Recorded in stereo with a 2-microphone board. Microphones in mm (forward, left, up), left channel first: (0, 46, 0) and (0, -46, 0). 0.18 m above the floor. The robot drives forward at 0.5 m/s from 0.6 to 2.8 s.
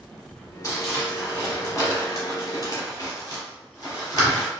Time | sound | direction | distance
0.6 | crumpling | 30° left (ahead or behind) | 1.9 m